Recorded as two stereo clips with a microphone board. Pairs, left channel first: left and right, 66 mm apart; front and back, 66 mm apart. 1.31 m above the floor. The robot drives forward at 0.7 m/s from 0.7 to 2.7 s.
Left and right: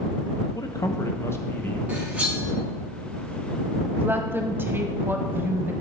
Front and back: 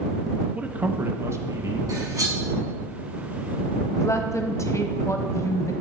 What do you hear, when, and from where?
0.6 s a man speaking: 110° left, 0.7 m; by 1.8 s 150° left, 1.2 m
1.9 s cutlery clinking: 165° right, 3 m
4.0 s a woman speaking: 35° right, 0.9 m